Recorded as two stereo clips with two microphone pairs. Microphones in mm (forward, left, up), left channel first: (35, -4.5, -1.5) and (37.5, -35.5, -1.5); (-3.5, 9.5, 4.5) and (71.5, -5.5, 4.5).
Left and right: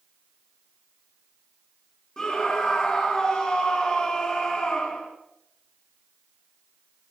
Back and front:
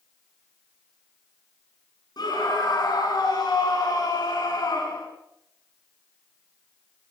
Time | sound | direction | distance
2.2 | a scream | 165° left | 3.5 m